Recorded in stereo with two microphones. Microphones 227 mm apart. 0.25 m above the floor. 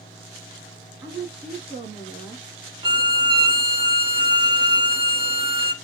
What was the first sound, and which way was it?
A woman speaking, 20° right (ahead or behind).